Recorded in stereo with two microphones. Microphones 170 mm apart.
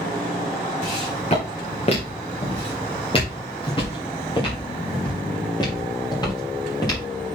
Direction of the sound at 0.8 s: 45° left (ahead or behind).